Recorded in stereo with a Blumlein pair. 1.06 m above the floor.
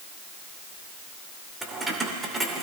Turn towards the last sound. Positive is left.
turn(degrees=-5)